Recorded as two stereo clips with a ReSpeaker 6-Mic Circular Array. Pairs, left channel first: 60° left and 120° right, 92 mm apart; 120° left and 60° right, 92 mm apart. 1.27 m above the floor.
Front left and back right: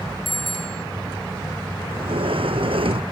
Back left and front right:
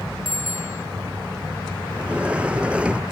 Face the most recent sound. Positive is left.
turn(degrees=-135)